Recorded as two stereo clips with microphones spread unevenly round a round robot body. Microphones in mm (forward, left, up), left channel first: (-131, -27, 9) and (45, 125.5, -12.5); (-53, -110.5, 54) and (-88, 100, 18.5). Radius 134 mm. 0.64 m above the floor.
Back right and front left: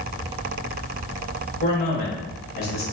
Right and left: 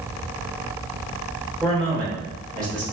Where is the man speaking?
170° left, 2.0 m.